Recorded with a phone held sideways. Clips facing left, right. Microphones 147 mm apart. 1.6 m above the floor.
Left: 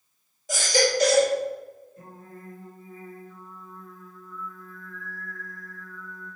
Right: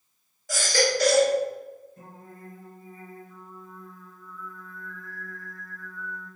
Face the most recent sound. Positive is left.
turn(degrees=-50)  # may be behind; listen again after turning